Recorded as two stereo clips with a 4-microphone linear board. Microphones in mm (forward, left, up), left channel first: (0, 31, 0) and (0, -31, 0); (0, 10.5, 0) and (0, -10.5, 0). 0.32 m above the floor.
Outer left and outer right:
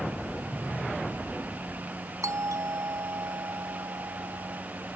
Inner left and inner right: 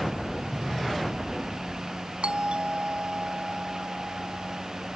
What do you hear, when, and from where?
2.2 s a doorbell: 60° right (ahead or behind)